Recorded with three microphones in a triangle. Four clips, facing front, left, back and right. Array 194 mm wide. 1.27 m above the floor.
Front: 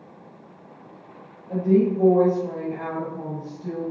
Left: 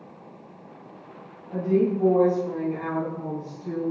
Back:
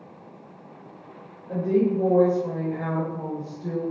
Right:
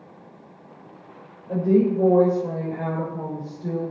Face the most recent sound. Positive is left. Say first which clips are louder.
# right 3 dB, front 2 dB
turn(degrees=-95)